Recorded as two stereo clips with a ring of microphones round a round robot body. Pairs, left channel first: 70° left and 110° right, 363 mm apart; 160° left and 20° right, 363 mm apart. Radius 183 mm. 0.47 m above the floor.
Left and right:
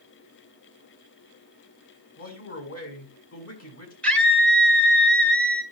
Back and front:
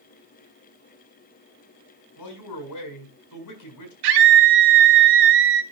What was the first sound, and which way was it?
A man speaking, 120° left.